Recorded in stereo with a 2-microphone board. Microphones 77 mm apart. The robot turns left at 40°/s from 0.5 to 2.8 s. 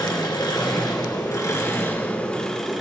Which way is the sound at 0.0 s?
85° left.